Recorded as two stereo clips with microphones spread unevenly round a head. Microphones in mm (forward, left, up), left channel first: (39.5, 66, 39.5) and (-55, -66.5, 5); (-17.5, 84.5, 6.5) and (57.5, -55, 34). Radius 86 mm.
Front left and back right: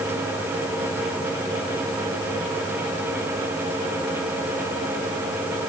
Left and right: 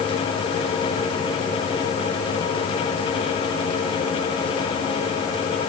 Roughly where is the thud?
I don't hear a thud.